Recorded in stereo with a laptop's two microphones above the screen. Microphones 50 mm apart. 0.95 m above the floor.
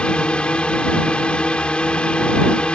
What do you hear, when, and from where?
0.0 s a drone: 20° left (ahead or behind)